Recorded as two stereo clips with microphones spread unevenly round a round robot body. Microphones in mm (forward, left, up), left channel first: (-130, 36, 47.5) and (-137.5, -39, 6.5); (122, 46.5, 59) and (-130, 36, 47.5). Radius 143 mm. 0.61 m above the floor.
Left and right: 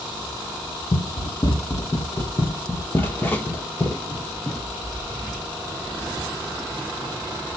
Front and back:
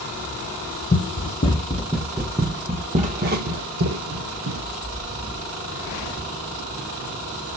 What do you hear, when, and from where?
0.9 s running footsteps: 55° left, 1.2 m; by 4.7 s 155° left, 1.6 m